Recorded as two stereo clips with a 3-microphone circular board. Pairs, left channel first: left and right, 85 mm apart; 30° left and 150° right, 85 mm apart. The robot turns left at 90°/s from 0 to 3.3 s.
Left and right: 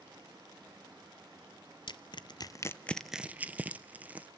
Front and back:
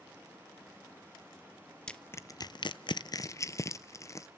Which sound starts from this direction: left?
Crushing, at 1.9 s.